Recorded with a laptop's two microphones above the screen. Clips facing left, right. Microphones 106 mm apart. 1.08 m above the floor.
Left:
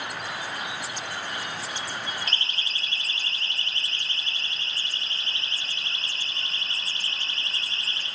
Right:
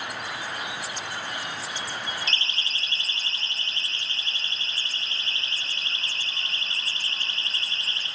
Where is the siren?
50° left (ahead or behind), 4 m; by 8.1 s 70° left (ahead or behind), 10 m.